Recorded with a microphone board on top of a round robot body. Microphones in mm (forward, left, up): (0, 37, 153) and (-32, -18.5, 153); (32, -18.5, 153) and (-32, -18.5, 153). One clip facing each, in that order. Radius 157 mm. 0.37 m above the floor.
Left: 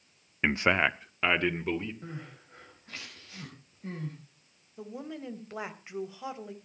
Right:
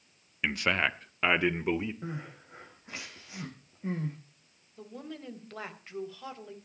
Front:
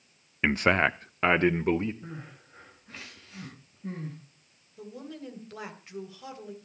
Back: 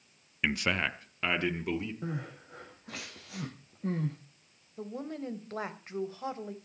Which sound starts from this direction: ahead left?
A man speaking, at 0.4 s.